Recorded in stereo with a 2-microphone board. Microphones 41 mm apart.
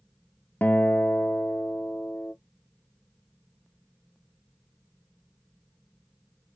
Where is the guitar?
50° left (ahead or behind), 0.7 m.